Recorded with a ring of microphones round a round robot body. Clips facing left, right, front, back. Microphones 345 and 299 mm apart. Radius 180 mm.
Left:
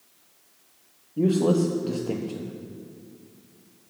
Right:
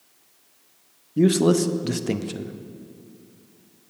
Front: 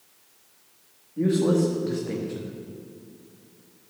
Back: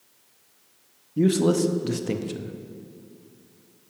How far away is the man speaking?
About 0.8 m.